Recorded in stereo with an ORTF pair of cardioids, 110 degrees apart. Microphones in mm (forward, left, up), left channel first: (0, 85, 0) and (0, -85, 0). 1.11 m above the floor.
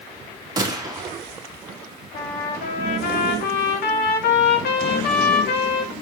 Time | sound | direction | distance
0.6 | a gunshot | 25° right | 2 m
2.1 | a trumpet | 70° left | 2.5 m